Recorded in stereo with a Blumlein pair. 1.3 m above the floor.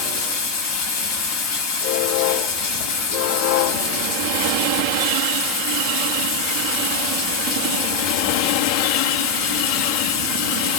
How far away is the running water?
About 1.5 m.